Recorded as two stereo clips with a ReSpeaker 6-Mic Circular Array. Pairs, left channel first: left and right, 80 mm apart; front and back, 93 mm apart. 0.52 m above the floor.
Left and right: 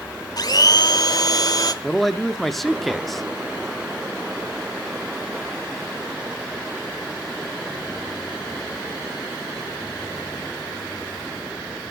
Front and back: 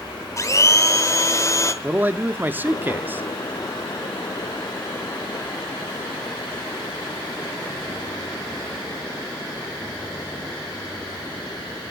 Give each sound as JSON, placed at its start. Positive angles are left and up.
{"t": 0.4, "sound": "a blender", "azimuth_deg": 55, "distance_m": 0.9}
{"t": 1.8, "sound": "a man speaking", "azimuth_deg": 170, "distance_m": 0.6}